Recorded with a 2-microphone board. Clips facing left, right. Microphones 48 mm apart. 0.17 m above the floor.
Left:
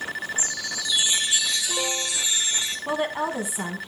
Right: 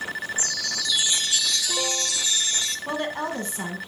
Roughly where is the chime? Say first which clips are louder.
Right 1 dB; centre.